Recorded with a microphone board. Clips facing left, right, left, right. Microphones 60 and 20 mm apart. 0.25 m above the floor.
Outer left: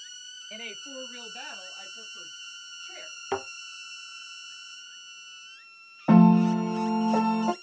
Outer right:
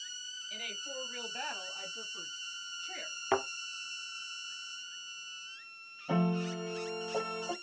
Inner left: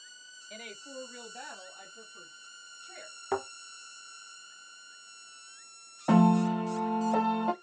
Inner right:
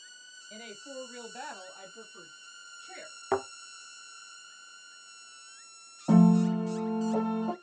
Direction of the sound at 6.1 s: 80° left.